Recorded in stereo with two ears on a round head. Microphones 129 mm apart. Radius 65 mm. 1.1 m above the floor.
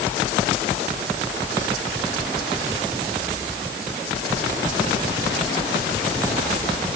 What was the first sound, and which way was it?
Only background noise.